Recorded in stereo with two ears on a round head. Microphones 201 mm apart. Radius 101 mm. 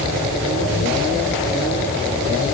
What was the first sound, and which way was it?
Only background noise.